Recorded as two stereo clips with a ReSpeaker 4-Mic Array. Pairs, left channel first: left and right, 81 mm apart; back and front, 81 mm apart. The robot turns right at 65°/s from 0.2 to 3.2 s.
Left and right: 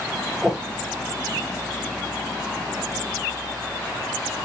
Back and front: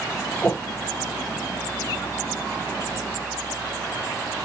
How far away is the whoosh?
About 0.7 m.